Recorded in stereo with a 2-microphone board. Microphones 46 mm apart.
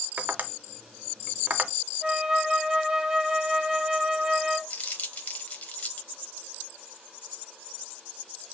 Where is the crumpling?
35° left (ahead or behind), 1.0 m.